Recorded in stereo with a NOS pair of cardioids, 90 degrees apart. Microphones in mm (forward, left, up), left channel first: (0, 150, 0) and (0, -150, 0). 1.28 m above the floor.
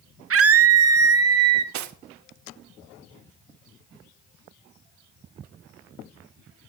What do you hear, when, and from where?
0.3 s a scream: 45° right, 1.8 m; by 1.6 s 60° right, 3 m
1.7 s cutlery clinking: 70° right, 1.2 m